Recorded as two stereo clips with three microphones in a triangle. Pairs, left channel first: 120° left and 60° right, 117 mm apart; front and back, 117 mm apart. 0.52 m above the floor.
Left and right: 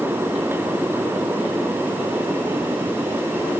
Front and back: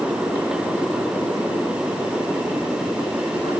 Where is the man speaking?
No man speaking in this recording.